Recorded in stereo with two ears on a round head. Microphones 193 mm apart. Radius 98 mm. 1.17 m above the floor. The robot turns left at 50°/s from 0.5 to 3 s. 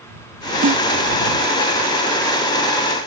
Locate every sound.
0.6 s a snare drum: 65° right (ahead or behind); by 0.8 s 60° right (ahead or behind)